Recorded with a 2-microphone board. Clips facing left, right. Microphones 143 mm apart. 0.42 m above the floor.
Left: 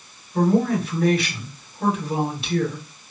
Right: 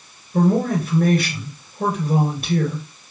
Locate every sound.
0.3 s a man speaking: 45° right (ahead or behind), 2 m